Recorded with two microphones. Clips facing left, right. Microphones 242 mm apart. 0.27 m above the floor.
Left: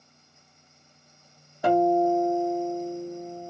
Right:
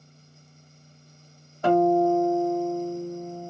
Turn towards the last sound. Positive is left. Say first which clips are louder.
# right 2 dB
turn(degrees=10)  # may be behind; listen again after turning